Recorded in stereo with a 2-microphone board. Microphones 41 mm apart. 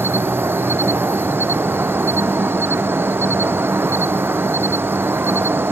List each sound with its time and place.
0.0 s an insect: 80° right